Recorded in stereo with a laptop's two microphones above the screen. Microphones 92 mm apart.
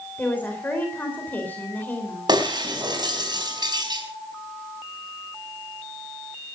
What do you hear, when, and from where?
0.2 s a woman speaking: 20° left (ahead or behind), 3.5 m
2.3 s breaking glass: 50° right (ahead or behind), 4 m